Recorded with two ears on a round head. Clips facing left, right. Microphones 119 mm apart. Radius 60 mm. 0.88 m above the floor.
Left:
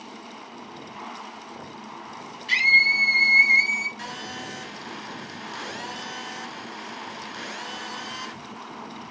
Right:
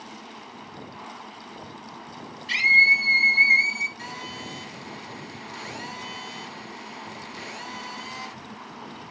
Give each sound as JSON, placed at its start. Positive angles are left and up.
{"t": 2.5, "sound": "a scream", "side_deg": 50, "distance_m": 4.0}
{"t": 4.0, "sound": "a phone buzzing", "side_deg": 75, "distance_m": 4.0}